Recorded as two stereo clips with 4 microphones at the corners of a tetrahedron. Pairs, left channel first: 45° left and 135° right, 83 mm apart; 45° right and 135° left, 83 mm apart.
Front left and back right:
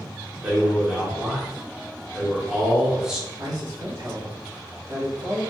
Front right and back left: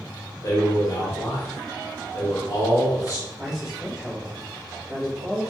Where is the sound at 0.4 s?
55° right, 1.1 m.